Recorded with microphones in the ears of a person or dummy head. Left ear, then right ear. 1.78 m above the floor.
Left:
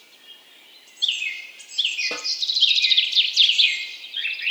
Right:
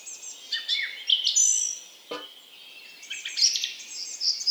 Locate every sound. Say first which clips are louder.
2.1 s a snare drum: left 5 dB; 35° left (ahead or behind), 4 m